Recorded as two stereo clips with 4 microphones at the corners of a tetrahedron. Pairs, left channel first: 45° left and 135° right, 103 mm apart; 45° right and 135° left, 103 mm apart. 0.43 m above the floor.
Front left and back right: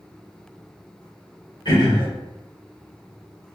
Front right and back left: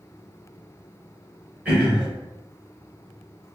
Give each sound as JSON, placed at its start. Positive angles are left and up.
{"t": 1.6, "sound": "throat clearing", "azimuth_deg": 65, "distance_m": 1.8}